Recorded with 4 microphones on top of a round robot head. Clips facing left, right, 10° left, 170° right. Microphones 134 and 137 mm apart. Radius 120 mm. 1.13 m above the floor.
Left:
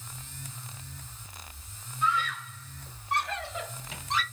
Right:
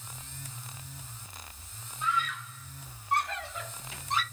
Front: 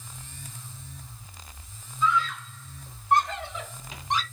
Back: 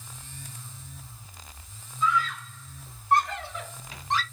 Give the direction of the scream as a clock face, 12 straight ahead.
10 o'clock.